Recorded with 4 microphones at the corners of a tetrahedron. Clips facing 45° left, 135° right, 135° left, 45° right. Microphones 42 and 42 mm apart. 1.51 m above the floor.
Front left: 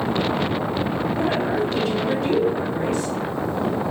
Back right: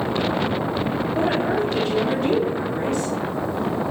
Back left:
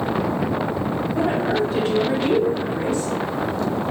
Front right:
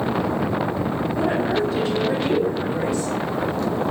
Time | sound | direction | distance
1.1 | a woman speaking | 170° right | 4.5 m